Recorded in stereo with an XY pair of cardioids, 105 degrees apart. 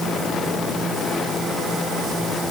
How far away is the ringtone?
I don't hear a ringtone.